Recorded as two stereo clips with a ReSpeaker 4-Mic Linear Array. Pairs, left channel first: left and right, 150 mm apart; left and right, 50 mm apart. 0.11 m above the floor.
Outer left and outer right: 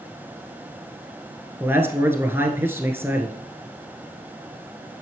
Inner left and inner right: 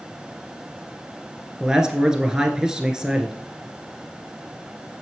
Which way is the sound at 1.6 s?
15° right (ahead or behind).